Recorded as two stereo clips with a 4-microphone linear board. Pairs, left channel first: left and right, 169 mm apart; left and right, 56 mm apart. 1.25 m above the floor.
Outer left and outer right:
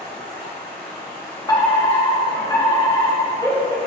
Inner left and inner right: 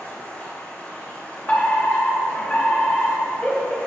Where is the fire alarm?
25° left (ahead or behind), 1.9 m.